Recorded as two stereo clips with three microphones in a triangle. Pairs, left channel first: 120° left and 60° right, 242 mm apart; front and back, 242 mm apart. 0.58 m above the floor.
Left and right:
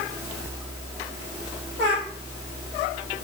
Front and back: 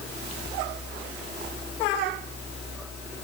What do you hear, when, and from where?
Only background noise.